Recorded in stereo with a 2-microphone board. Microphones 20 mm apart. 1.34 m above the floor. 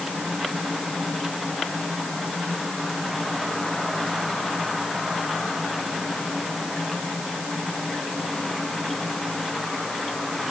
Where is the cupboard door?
No cupboard door in this recording.